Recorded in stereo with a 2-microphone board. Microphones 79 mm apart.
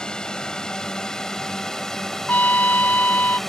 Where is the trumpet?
20° left (ahead or behind).